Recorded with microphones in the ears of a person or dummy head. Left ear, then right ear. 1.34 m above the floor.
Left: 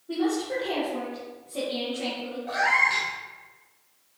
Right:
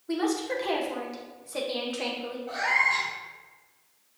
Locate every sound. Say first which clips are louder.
0.1 s a woman speaking: left 1 dB; 55° right (ahead or behind), 1.1 m
2.5 s a cat meowing: left 2 dB; 20° left (ahead or behind), 1.2 m